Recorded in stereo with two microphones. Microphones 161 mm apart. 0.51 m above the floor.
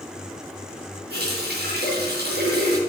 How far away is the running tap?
About 4.5 m.